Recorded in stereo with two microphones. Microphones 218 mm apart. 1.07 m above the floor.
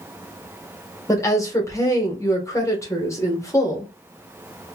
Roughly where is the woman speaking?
Centre.